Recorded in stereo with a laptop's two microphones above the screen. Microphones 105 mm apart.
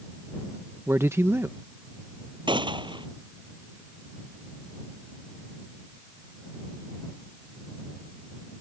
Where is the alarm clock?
No alarm clock in this recording.